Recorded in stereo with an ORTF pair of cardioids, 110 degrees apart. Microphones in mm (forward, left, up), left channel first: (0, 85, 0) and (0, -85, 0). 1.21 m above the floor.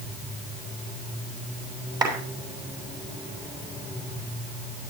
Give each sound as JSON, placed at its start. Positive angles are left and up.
{"t": 2.0, "sound": "a clap", "azimuth_deg": -25, "distance_m": 7.0}